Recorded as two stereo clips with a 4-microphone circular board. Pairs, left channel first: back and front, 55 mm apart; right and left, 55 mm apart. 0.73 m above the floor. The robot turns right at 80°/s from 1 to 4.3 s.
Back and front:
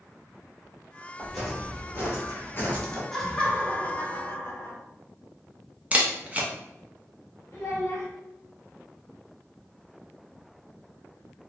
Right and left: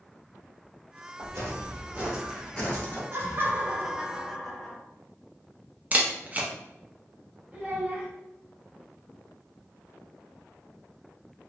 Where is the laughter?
95° left, 0.7 m; by 4.8 s 170° right, 0.7 m.